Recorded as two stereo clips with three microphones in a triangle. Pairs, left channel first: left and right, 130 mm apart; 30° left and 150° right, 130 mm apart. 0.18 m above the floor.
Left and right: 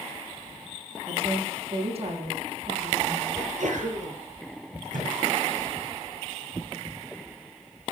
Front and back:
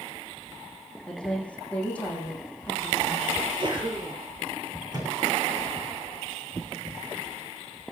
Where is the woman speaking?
50° right, 8 m.